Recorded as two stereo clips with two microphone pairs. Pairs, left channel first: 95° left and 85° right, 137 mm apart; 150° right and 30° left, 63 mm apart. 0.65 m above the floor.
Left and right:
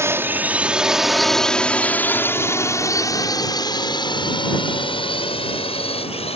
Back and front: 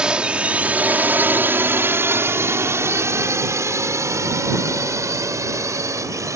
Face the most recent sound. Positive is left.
turn(degrees=55)